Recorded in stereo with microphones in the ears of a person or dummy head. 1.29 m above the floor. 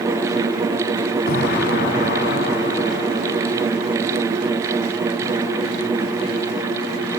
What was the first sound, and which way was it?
An explosion, 50° left (ahead or behind).